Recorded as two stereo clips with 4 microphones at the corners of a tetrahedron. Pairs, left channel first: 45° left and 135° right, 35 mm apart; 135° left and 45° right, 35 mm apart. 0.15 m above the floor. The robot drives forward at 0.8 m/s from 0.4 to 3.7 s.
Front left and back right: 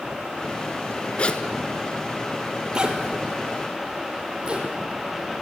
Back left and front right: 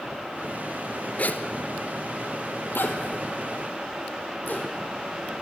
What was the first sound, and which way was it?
A zipper, 95° left.